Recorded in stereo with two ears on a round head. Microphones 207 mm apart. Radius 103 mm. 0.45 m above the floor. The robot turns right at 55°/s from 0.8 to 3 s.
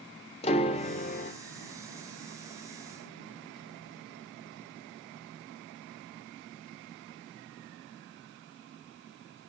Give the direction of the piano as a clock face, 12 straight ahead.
11 o'clock.